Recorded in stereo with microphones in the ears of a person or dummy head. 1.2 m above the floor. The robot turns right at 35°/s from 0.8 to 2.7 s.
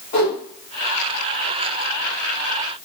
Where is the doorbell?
No doorbell in this recording.